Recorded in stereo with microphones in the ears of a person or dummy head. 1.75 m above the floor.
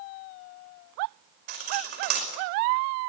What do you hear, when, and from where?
1.5 s cutlery clinking: 50° right (ahead or behind), 5 m